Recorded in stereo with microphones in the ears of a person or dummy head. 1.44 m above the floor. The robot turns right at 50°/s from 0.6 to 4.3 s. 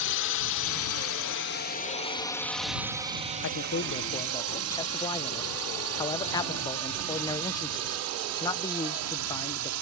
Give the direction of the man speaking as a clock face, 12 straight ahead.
8 o'clock.